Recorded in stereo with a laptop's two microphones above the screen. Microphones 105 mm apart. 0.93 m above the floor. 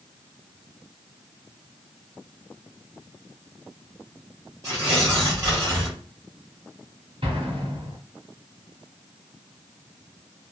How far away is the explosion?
About 1.6 m.